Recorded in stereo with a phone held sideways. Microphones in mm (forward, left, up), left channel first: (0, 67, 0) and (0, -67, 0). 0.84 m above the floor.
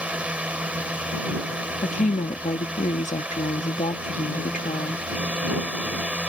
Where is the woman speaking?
65° left (ahead or behind).